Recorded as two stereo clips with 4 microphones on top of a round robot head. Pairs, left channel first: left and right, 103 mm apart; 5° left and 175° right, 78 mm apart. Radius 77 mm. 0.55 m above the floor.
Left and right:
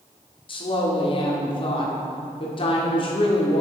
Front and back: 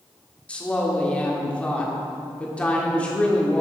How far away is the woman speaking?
About 1.6 m.